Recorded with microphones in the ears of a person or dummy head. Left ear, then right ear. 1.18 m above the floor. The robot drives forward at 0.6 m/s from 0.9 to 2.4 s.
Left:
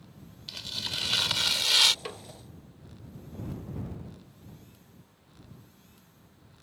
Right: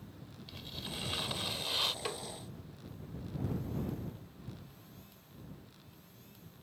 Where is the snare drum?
5° left (ahead or behind).